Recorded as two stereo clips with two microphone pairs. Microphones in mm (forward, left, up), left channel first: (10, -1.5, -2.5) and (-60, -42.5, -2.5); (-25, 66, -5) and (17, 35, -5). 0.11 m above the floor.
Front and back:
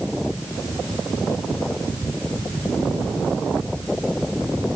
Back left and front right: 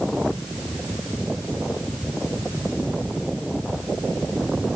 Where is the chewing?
No chewing in this recording.